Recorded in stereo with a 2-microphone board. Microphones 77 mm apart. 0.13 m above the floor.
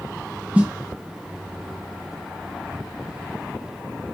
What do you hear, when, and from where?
0.6 s a snare drum: 15° right (ahead or behind), 1.4 m